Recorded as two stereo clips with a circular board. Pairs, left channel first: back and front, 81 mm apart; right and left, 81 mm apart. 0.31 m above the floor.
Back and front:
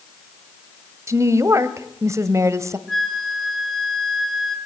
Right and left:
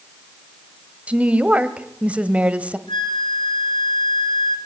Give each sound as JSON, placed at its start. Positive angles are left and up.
{"t": 1.1, "sound": "a woman speaking", "azimuth_deg": 25, "distance_m": 1.5}
{"t": 2.9, "sound": "a flute", "azimuth_deg": -90, "distance_m": 1.9}